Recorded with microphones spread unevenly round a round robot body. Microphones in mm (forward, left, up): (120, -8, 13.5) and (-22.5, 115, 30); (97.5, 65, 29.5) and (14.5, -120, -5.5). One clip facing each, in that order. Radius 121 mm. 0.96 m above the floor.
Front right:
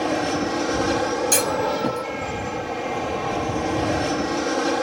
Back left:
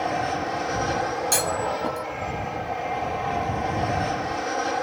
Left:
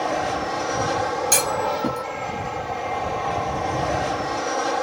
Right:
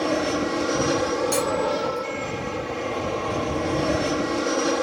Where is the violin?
I don't hear a violin.